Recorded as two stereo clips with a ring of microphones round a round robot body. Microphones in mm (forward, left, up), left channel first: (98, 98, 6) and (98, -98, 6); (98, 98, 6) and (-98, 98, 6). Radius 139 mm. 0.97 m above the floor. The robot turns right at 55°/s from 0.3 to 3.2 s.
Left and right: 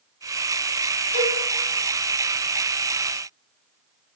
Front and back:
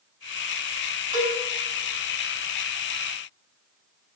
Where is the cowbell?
130° left, 4.5 m; by 1.4 s 145° left, 4.5 m.